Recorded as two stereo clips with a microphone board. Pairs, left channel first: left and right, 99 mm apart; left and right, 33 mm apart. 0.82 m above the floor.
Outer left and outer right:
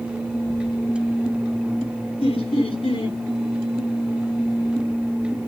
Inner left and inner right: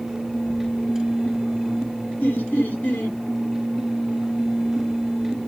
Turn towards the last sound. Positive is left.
turn(degrees=75)  # may be behind; listen again after turning